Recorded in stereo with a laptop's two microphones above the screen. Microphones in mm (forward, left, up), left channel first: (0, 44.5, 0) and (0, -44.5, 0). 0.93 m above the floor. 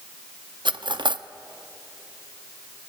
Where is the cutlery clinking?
65° right (ahead or behind), 0.7 m.